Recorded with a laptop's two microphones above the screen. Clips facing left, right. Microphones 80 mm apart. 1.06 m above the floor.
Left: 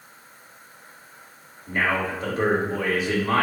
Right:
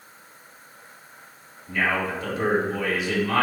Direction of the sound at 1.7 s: 35° left (ahead or behind).